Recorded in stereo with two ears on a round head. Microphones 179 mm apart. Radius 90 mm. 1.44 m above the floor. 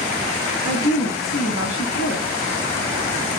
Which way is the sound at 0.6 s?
65° left (ahead or behind).